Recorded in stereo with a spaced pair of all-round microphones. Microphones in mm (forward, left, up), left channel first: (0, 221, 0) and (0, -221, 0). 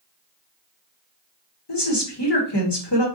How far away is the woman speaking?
About 1.1 m.